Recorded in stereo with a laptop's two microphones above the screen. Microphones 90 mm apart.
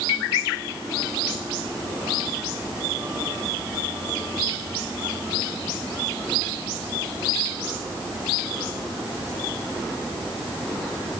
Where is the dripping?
I don't hear dripping.